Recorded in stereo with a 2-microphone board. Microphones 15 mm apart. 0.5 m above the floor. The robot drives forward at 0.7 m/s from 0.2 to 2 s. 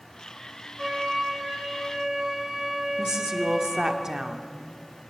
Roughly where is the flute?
Centre.